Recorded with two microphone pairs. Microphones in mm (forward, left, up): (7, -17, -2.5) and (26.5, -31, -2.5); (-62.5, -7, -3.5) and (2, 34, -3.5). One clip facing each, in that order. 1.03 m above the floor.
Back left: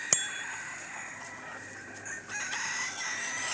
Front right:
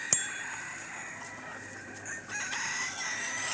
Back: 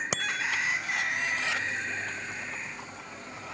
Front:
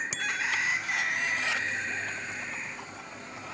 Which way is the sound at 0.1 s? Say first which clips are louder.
Back left 4 dB, back 3 dB; 150° right.